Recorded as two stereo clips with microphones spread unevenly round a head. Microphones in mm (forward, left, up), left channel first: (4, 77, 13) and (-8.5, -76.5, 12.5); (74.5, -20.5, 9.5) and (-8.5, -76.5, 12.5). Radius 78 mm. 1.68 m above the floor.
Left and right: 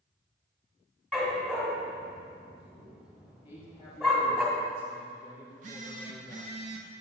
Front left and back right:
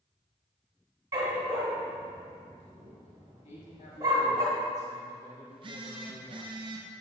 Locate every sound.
1.1 s a dog barking: 175° left, 1.7 m
3.5 s a man speaking: 30° left, 2.5 m
5.5 s a phone buzzing: 130° right, 0.8 m